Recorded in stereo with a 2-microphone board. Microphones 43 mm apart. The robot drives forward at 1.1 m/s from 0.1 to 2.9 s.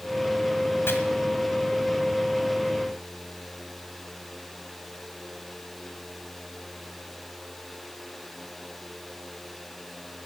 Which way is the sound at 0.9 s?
65° left (ahead or behind).